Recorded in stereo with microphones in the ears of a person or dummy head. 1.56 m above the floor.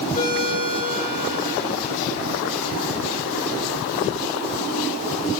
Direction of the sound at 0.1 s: 40° left (ahead or behind).